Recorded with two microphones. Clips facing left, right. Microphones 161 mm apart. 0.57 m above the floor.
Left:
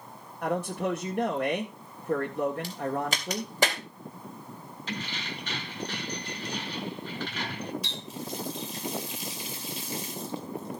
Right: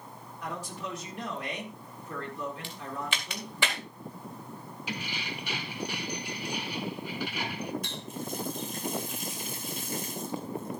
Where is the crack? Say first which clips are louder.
Left 7 dB; 40° left (ahead or behind), 2 m.